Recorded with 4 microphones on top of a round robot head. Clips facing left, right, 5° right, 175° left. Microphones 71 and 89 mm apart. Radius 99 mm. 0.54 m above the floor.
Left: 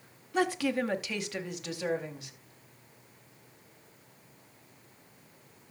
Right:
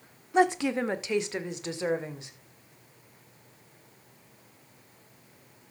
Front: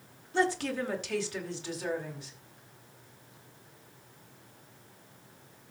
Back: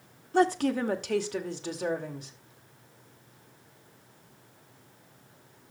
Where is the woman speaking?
155° right, 1.5 m; by 2.3 s 150° right, 3 m.